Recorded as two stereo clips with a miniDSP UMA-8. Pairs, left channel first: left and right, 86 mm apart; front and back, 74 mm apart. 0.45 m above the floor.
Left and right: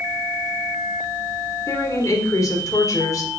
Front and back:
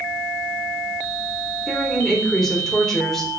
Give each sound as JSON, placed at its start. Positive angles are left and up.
{"t": 1.7, "sound": "a woman speaking", "azimuth_deg": 80, "distance_m": 1.0}